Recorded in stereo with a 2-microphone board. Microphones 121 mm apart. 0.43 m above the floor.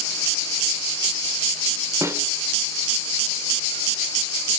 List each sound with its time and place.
2.0 s a snare drum: 25° right (ahead or behind), 0.8 m